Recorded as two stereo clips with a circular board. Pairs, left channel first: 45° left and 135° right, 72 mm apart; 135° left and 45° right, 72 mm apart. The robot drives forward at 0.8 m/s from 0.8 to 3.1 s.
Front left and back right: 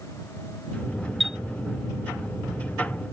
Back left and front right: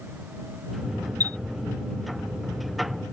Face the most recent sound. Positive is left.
turn(degrees=-165)